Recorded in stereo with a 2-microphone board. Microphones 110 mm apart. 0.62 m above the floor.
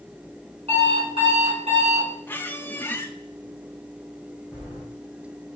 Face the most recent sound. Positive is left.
turn(degrees=-20)  # may be behind; listen again after turning